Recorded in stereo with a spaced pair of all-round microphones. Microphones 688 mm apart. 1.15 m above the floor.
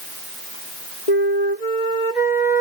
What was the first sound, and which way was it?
A flute, 75° left (ahead or behind).